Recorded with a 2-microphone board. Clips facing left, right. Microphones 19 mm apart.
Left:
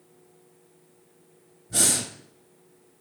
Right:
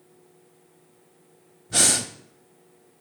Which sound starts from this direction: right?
Breathing, at 1.7 s.